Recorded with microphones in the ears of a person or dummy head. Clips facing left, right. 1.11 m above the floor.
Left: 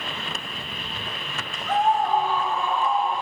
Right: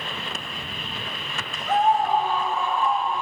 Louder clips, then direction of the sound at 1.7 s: Right 1 dB; 5° right (ahead or behind).